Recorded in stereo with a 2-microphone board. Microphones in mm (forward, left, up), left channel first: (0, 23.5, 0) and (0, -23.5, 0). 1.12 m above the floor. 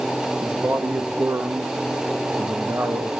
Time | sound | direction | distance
0.4 | a man speaking | 70° right (ahead or behind) | 1.5 m